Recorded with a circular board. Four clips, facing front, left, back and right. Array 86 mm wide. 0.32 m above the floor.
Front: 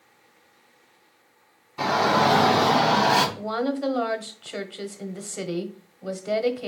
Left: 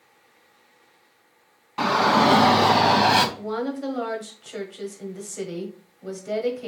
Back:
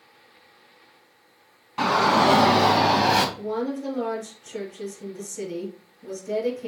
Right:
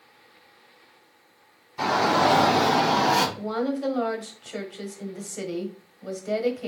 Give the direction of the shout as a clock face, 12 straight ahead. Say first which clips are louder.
Left 2 dB, back 1 dB; 8 o'clock.